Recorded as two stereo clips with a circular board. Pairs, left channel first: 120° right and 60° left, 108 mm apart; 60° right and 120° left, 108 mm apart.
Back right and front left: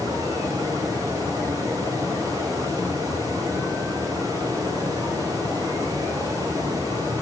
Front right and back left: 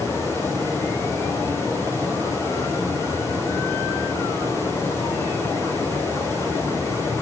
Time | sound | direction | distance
0.0 | running water | 5° left | 7 m